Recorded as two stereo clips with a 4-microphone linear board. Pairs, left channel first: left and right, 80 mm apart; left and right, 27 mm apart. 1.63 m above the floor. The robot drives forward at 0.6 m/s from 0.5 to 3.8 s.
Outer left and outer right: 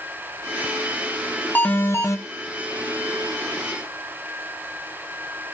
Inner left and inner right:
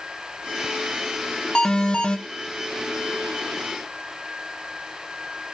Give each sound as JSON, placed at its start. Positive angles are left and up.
{"t": 1.6, "sound": "an alarm", "side_deg": 25, "distance_m": 0.7}